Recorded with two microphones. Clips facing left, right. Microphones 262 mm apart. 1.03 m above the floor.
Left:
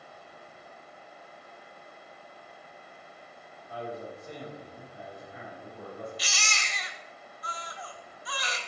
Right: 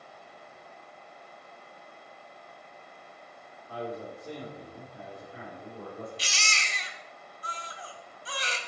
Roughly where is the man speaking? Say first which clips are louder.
Right 1 dB; right.